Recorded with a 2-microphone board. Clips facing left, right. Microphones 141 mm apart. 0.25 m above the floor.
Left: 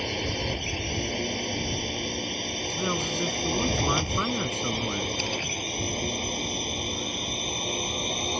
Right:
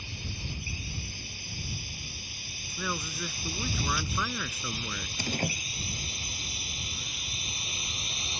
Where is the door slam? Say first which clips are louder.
Left 1 dB; 40° right (ahead or behind).